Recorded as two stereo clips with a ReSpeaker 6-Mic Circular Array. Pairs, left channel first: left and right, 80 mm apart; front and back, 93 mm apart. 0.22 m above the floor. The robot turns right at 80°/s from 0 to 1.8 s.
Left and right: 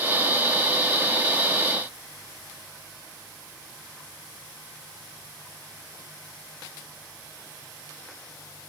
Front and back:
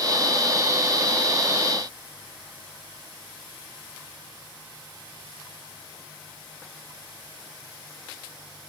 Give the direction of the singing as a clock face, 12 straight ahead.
No singing in this recording.